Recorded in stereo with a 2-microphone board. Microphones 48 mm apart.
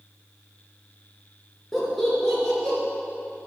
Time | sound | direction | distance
1.7 | laughter | 5° left (ahead or behind) | 4 m